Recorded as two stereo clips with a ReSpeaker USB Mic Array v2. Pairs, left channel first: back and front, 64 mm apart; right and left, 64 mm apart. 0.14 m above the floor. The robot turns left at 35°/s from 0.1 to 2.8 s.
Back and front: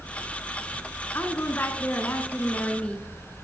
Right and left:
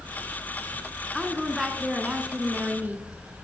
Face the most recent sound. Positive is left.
turn(degrees=125)